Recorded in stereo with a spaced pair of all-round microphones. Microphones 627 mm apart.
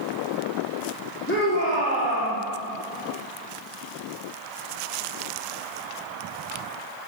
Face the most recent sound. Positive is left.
turn(degrees=20)  # may be behind; listen again after turning